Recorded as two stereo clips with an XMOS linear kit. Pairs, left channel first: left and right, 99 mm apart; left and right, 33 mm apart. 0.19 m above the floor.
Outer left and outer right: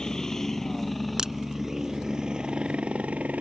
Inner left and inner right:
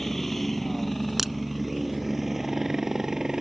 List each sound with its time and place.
0.0 s a helicopter: 5° left (ahead or behind); by 3.4 s 15° right (ahead or behind)
1.2 s a crack: 5° right (ahead or behind)